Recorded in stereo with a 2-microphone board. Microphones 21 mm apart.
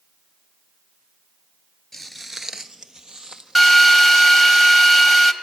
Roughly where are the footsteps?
Centre.